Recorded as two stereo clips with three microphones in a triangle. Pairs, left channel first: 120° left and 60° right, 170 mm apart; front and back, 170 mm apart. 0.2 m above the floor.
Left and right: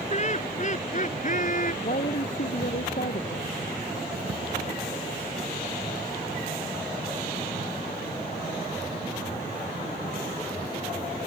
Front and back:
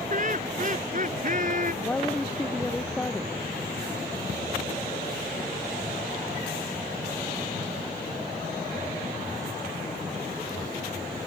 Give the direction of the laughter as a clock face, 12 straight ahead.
7 o'clock.